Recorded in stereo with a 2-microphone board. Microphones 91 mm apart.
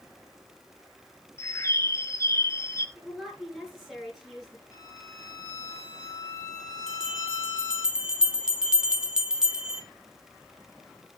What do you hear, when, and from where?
1.4 s a bird: 30° left (ahead or behind), 1.1 m
3.0 s a woman speaking: 5° right (ahead or behind), 7 m
4.7 s a violin: 35° left (ahead or behind), 3.5 m
6.9 s a bell: 10° right (ahead or behind), 1.6 m